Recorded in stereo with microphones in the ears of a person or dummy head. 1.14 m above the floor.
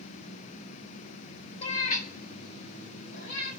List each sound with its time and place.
1.6 s a cat meowing: 30° left (ahead or behind), 0.8 m; by 3.5 s 60° left (ahead or behind), 3.5 m